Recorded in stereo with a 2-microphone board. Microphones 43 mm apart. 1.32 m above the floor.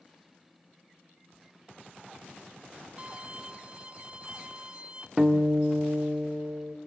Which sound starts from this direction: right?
A violin, at 3.0 s.